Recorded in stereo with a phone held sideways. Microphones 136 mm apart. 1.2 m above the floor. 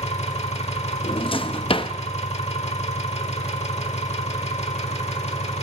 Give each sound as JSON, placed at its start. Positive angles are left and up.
{"t": 0.0, "sound": "an engine running", "side_deg": 50, "distance_m": 1.2}
{"t": 1.0, "sound": "a drawer", "side_deg": 40, "distance_m": 0.6}